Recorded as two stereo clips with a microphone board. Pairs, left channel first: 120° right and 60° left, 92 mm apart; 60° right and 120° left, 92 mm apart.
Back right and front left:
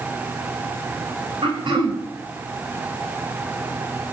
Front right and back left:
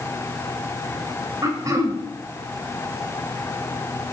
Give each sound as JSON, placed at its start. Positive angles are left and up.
{"t": 1.4, "sound": "throat clearing", "azimuth_deg": 75, "distance_m": 2.0}